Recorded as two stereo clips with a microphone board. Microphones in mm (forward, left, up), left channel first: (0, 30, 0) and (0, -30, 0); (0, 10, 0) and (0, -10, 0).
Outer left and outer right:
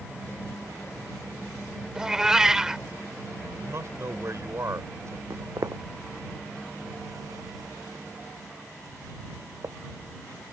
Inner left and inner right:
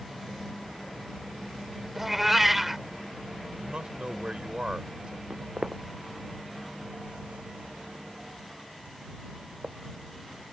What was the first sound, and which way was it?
A cat meowing, 10° right (ahead or behind).